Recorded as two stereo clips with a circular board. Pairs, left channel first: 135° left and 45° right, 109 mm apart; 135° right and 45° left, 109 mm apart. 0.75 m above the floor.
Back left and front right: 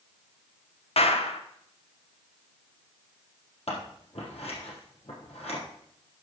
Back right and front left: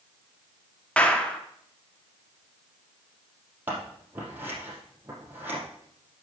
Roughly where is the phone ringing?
I don't hear a phone ringing.